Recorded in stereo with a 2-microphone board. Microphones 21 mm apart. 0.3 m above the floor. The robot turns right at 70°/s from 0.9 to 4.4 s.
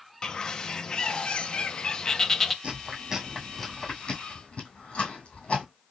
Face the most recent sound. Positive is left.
turn(degrees=70)  # may be behind; listen again after turning